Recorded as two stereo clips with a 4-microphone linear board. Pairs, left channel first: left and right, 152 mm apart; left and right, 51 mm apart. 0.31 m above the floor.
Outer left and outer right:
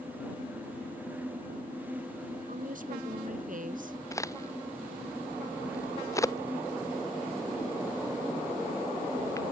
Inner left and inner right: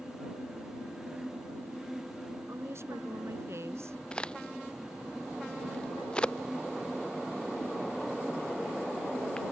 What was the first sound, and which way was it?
A woman speaking, 65° right (ahead or behind).